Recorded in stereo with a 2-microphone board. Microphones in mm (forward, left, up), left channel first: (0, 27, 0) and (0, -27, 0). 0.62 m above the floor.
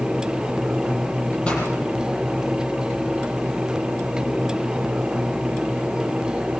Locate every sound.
1.4 s a pop: 20° left (ahead or behind), 7.5 m